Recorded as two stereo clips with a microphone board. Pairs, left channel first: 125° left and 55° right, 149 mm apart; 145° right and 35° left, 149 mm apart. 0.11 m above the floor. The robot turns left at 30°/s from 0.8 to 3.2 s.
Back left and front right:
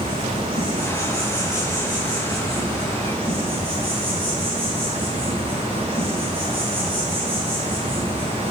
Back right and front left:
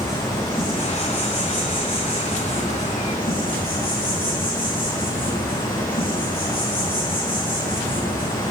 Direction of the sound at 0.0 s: 60° right.